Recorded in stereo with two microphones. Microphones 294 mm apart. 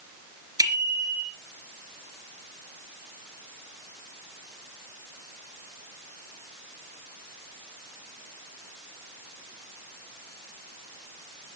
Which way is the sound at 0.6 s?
10° right (ahead or behind).